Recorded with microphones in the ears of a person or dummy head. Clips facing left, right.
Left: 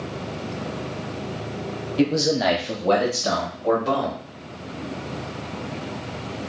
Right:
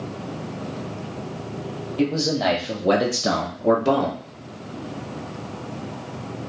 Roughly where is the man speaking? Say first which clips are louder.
Left 2 dB; left.